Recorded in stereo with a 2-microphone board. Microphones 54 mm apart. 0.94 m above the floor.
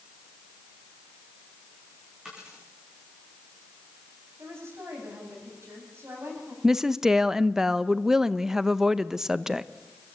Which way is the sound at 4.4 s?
55° right (ahead or behind).